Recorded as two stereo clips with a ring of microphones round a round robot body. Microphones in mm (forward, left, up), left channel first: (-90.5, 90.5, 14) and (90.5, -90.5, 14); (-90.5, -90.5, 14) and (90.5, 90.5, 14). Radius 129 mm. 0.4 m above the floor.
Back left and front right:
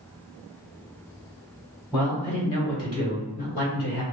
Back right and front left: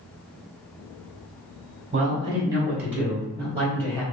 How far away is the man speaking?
About 1.3 m.